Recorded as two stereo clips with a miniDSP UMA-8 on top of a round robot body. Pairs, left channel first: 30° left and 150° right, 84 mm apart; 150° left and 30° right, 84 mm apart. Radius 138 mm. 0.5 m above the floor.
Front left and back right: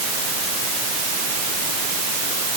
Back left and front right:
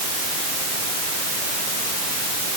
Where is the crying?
No crying in this recording.